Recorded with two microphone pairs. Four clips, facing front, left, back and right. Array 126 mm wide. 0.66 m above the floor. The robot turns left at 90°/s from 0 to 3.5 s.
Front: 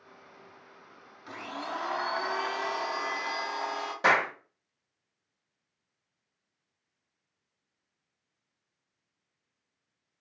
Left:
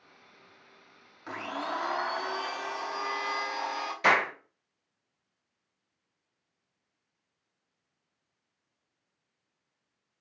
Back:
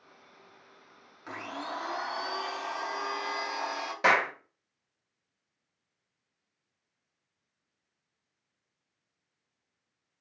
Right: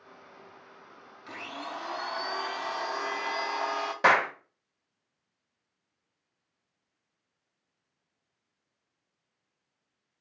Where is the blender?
110° left, 0.8 m; by 3.9 s 90° right, 0.8 m.